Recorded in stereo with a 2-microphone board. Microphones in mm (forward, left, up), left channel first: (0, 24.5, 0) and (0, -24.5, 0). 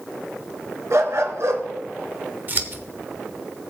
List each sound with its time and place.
0.9 s a dog barking: 65° right (ahead or behind), 1.5 m
2.5 s scissors: 35° right (ahead or behind), 0.9 m